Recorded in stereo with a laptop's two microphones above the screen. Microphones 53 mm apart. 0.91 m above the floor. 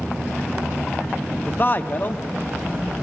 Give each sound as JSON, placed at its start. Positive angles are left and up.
{"t": 1.5, "sound": "a man speaking", "side_deg": 35, "distance_m": 0.7}